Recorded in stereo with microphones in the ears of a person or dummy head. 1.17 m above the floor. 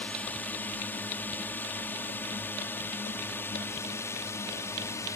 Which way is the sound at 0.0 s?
5° left (ahead or behind).